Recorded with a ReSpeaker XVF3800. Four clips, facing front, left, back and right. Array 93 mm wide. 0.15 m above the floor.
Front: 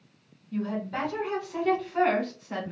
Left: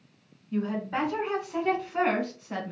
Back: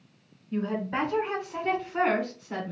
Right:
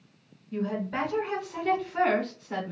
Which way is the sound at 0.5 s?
145° left.